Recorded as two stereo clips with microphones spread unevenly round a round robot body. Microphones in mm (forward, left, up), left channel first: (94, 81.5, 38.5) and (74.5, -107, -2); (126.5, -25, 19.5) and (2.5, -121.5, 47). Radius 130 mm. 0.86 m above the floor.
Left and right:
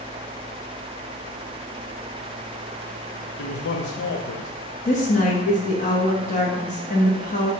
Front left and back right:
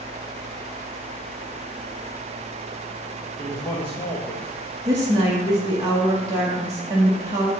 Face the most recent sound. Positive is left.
turn(degrees=140)